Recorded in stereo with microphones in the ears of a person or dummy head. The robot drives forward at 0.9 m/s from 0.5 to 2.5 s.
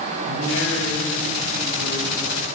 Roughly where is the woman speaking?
Left.